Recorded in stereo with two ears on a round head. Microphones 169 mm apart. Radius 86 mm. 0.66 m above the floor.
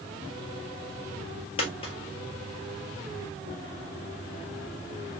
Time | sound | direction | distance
1.6 | a dropped coin | 35° left (ahead or behind) | 1.7 m